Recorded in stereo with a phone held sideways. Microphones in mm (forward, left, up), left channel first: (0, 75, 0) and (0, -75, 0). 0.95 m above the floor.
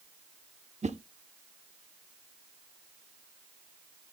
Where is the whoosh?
50° right (ahead or behind), 0.8 m.